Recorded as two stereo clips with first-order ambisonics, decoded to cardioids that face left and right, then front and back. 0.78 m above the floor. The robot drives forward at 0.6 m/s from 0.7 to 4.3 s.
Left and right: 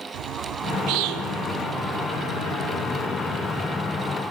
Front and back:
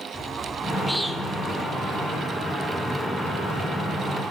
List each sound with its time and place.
0.1 s a bird: 90° right, 1.6 m; by 1.7 s 110° right, 1.7 m